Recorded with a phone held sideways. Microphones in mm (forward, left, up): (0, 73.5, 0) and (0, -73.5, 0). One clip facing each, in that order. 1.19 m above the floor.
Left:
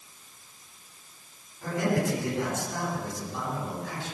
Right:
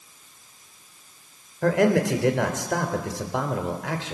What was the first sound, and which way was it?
A man speaking, 80° right.